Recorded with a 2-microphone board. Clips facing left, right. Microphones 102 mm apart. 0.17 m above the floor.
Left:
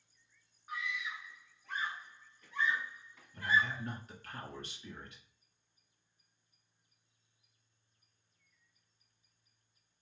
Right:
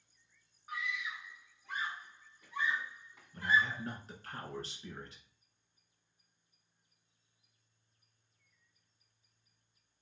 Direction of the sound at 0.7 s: 5° right (ahead or behind).